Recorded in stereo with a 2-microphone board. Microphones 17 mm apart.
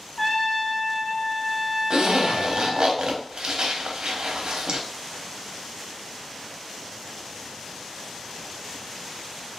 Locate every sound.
0.2 s a trumpet: 10° left (ahead or behind), 1.4 m
1.9 s a zipper: 70° right (ahead or behind), 0.5 m